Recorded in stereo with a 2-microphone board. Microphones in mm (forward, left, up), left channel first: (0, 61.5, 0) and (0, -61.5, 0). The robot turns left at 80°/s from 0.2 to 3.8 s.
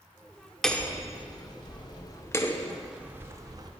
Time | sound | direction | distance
0.6 | hammering | 5° left (ahead or behind) | 0.6 m